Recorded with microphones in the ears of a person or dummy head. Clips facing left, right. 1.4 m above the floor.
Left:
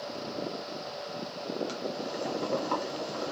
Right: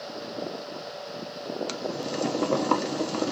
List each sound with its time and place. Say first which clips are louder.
1.7 s boiling: right 4 dB; 80° right, 0.8 m